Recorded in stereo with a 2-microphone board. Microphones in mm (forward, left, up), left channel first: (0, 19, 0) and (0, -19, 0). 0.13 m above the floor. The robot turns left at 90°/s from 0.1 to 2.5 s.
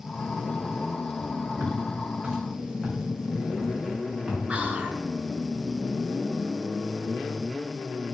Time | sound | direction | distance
1.6 | footsteps | 80° right | 3 m
4.5 | whispering | 30° right (ahead or behind) | 2 m